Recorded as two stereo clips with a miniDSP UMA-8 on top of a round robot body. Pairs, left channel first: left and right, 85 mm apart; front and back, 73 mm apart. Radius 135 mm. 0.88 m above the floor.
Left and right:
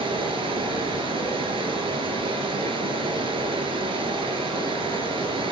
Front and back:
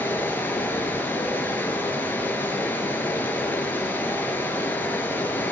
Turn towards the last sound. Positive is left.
turn(degrees=-65)